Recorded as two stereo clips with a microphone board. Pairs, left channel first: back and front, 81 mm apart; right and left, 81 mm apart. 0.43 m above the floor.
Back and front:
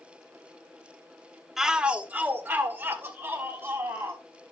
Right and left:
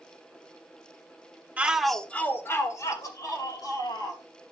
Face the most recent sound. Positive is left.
turn(degrees=-60)